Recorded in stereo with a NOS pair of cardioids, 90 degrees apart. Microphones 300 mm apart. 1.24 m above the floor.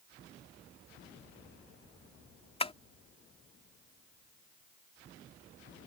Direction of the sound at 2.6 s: 20° left.